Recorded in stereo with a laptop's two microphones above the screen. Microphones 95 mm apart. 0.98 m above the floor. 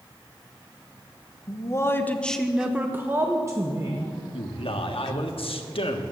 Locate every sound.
1.5 s a man speaking: 35° left (ahead or behind), 1.2 m; by 4.1 s 35° right (ahead or behind), 1.9 m
4.3 s a man speaking: 75° left (ahead or behind), 1.5 m